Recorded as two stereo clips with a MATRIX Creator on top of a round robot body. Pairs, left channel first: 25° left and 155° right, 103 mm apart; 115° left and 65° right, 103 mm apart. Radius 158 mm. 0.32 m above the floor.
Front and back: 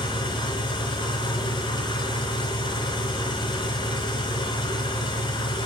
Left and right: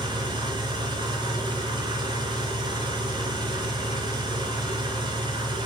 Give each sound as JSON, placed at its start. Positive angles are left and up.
{"t": 0.0, "sound": "an engine running", "azimuth_deg": -25, "distance_m": 4.5}